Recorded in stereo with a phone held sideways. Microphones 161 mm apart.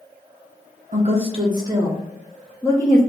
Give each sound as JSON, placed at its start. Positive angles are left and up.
{"t": 0.9, "sound": "a woman speaking", "side_deg": -50, "distance_m": 1.0}